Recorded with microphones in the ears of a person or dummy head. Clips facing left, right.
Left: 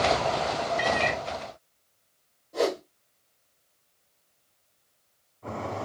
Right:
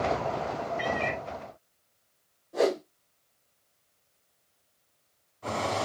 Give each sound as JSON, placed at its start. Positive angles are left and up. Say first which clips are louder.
{"t": 0.8, "sound": "a cat meowing", "louder": "left 3 dB", "side_deg": 20, "distance_m": 0.6}
{"t": 2.5, "sound": "a whoosh", "louder": "right 1 dB", "side_deg": -5, "distance_m": 1.6}